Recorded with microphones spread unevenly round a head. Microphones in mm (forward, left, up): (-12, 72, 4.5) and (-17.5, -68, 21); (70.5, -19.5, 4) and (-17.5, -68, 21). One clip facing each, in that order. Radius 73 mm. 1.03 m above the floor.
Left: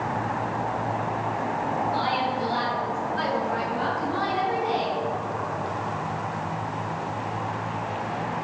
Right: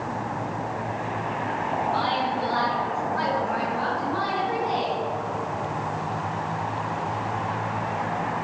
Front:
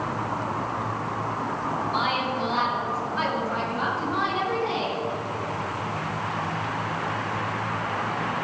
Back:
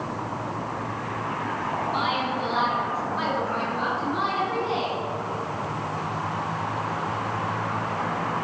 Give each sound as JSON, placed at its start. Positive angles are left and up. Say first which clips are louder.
{"t": 1.9, "sound": "a woman speaking", "louder": "even, even", "azimuth_deg": 15, "distance_m": 3.5}